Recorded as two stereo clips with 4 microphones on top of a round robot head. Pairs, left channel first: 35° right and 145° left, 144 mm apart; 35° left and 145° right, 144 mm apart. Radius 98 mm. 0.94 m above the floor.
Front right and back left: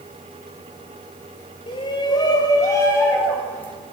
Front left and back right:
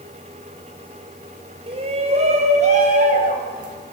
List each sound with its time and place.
1.7 s a shout: 95° right, 5.5 m; by 3.7 s 115° right, 7.5 m